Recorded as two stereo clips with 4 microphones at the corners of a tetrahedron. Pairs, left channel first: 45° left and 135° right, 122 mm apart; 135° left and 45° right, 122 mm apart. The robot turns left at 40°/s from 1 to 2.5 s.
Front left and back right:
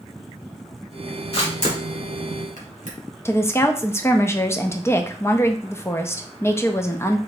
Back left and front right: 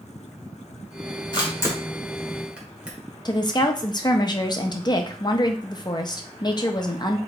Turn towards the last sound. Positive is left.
turn(degrees=105)